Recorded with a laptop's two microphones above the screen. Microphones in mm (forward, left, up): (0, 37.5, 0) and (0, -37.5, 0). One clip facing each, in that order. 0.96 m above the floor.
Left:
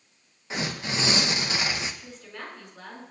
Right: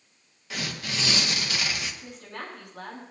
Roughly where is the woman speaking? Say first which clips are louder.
Right 2 dB; right.